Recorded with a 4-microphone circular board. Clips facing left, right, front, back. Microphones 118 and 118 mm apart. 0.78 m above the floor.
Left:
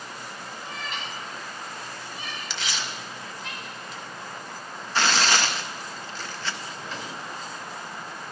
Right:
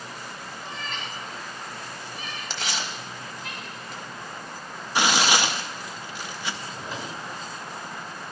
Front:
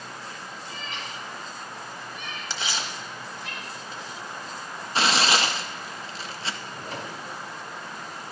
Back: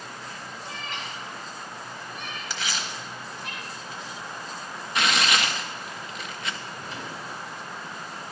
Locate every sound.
0.6 s a cat meowing: straight behind, 1.8 m; by 3.5 s 140° left, 5 m
2.5 s tearing paper: 55° right, 1.0 m
5.0 s tearing paper: 25° right, 0.6 m
6.6 s a drawer: 10° right, 2 m